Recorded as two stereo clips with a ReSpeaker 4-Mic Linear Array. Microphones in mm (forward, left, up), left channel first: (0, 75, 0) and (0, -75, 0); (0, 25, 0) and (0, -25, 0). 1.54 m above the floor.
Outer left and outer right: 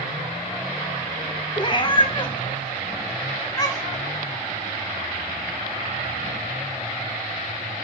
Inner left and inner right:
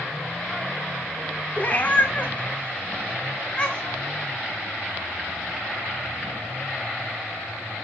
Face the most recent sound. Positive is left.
turn(degrees=25)  # may be behind; listen again after turning